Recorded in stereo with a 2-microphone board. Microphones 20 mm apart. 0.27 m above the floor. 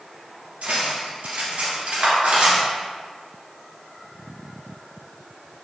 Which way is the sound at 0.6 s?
70° right (ahead or behind).